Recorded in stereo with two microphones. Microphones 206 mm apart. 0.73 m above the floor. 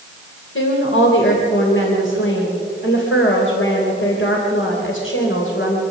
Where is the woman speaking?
75° left (ahead or behind), 3.5 m.